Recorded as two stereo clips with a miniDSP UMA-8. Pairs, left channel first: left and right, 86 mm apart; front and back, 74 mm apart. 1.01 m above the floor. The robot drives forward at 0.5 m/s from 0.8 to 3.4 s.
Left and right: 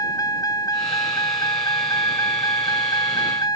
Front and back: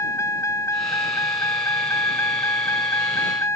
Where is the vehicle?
45° left; by 3.6 s 50° left.